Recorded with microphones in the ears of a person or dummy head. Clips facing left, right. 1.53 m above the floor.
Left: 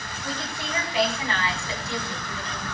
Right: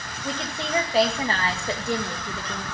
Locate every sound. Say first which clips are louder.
0.2 s a woman speaking: right 3 dB; 15° right (ahead or behind), 2 m; by 2.6 s 50° right (ahead or behind), 2.5 m